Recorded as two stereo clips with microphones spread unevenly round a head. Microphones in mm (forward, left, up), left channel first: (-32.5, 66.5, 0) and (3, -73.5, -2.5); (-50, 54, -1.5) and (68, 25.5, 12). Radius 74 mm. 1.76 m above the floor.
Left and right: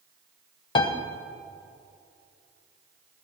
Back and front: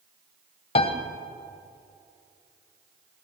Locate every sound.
0.8 s a piano: 145° left, 0.9 m